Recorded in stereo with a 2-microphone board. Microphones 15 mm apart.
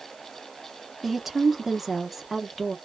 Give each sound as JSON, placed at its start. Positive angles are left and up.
{"t": 1.0, "sound": "a woman speaking", "side_deg": -20, "distance_m": 0.9}